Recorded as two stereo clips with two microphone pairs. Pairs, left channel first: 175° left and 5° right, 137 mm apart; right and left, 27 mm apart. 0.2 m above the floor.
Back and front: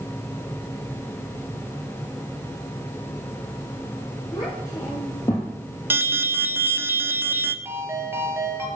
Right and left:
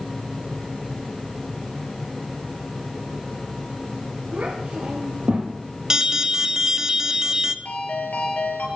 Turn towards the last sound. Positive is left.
turn(degrees=-75)